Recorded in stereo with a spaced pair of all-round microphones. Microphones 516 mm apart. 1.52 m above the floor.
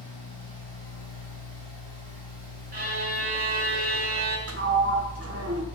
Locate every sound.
0.0 s a fan: 55° left (ahead or behind), 7.5 m
2.7 s a violin: 45° right (ahead or behind), 3.5 m
4.5 s a sliding door: 25° right (ahead or behind), 1.3 m